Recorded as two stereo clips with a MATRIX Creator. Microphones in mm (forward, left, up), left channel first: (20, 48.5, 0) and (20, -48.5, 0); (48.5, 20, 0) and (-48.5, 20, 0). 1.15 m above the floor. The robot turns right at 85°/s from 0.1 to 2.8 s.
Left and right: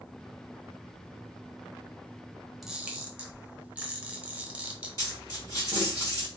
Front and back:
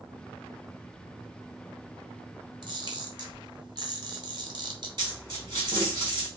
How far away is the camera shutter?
About 0.9 m.